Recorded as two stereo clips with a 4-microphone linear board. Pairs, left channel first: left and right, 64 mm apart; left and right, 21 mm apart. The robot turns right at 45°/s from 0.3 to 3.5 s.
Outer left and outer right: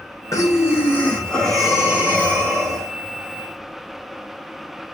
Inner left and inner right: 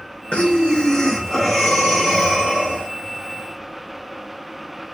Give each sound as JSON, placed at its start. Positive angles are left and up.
{"t": 0.3, "sound": "breathing", "azimuth_deg": 125, "distance_m": 2.5}